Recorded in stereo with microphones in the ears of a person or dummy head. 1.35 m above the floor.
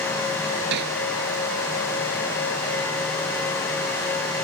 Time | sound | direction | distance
0.7 | hammering | 65° right (ahead or behind) | ?